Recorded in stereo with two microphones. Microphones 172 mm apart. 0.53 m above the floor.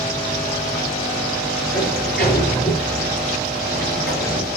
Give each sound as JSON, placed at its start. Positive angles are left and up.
{"t": 1.7, "sound": "a sliding door", "side_deg": 70, "distance_m": 8.0}